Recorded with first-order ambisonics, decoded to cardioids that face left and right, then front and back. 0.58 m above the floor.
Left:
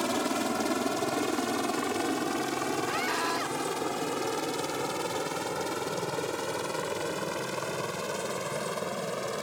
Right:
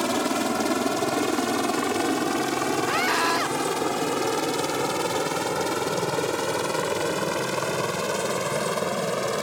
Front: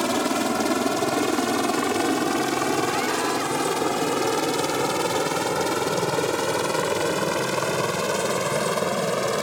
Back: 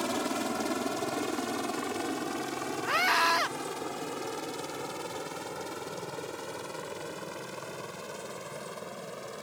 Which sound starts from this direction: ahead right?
A helicopter, at 0.0 s.